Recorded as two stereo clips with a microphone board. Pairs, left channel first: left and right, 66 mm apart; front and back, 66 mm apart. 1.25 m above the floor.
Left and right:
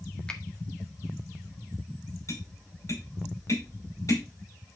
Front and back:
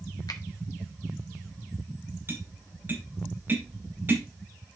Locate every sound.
0.3 s a finger snap: 15° left, 1.6 m
2.3 s tapping: 125° left, 4.5 m